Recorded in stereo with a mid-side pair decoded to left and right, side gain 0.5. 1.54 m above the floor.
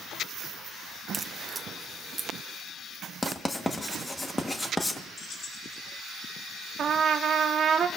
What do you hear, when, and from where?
1.1 s a crack: 30° right, 0.7 m
3.2 s writing: 15° left, 1.4 m
5.2 s keys jangling: 50° left, 1.9 m
6.8 s a trumpet: 55° right, 1.0 m